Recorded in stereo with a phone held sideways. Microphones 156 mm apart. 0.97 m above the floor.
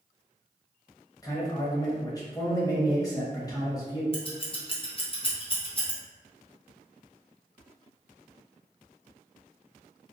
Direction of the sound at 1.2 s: 25° left (ahead or behind).